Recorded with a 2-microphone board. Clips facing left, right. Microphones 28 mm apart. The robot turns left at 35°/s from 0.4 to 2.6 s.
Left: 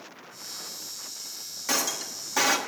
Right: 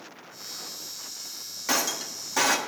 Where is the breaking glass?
10° right (ahead or behind), 1.3 m; by 2.6 s 10° left (ahead or behind), 1.3 m.